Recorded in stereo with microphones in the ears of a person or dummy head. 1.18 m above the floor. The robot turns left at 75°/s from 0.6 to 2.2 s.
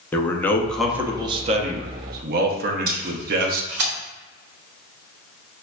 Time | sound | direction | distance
0.1 | a man speaking | 20° left | 0.5 m
2.9 | tape being pulled | 45° right (ahead or behind) | 1.0 m